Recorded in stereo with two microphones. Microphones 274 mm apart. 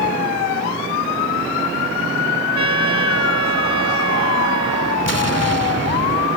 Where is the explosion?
60° left (ahead or behind).